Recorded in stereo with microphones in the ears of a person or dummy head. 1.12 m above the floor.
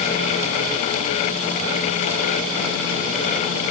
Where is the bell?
No bell in this recording.